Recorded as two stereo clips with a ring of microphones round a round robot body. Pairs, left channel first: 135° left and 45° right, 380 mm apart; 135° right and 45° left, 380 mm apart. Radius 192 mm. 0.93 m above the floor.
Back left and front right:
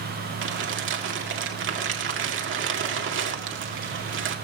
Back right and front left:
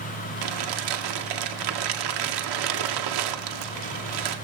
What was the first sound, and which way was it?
Crumpling, 15° left.